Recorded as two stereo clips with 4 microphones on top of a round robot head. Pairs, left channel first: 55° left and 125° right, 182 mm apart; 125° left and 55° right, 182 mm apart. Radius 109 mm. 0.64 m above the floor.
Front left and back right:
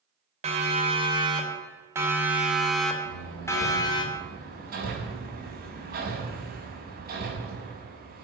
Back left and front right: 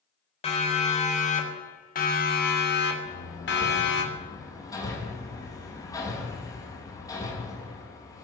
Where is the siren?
Straight behind, 4 m; by 4.0 s 120° left, 3 m.